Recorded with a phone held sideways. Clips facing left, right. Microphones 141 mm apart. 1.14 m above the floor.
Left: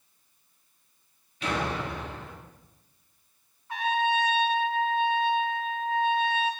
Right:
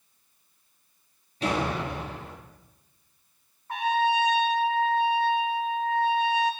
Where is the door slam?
40° right (ahead or behind), 2.5 m.